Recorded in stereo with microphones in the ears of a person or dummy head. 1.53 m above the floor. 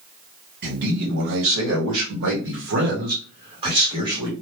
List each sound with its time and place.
0.6 s a man speaking: 50° right (ahead or behind), 1.6 m; by 4.3 s 20° right (ahead or behind), 1.4 m